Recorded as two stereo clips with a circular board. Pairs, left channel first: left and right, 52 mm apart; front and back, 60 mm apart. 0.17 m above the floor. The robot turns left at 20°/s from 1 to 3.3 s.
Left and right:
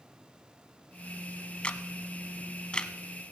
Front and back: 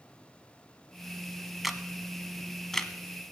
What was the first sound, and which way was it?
A camera shutter, 95° left.